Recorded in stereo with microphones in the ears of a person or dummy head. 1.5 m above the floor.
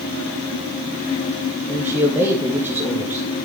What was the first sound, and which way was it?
A man speaking, 10° right (ahead or behind).